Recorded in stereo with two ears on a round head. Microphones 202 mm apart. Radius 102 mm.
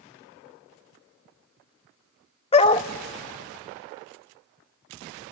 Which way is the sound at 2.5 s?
25° left (ahead or behind).